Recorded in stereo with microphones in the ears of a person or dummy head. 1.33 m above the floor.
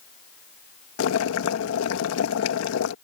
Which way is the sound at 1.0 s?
75° left (ahead or behind).